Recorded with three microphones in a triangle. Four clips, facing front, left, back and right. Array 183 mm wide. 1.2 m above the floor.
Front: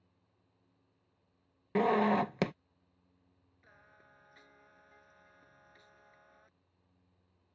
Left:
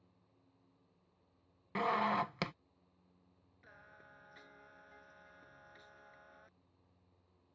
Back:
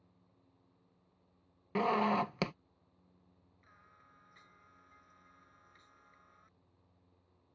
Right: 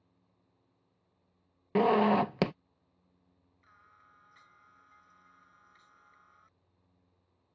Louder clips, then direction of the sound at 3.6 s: Left 2 dB, front 2 dB; 60° left.